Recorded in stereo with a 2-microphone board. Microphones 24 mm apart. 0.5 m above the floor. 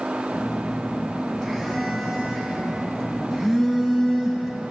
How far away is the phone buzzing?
About 3.5 m.